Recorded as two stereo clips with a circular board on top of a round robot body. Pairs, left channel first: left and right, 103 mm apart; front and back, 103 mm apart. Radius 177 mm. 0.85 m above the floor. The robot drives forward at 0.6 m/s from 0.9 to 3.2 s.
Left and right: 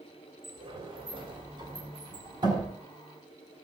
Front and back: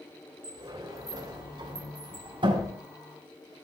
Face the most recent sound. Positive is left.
turn(degrees=-140)